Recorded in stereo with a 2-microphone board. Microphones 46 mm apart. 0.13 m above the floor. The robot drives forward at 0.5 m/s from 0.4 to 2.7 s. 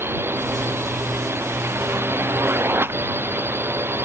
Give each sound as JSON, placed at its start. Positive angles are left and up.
{"t": 0.0, "sound": "a drone", "side_deg": -60}